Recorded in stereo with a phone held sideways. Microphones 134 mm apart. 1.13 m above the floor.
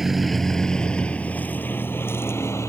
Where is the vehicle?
Centre (ahead or behind); by 2.7 s 20° left (ahead or behind).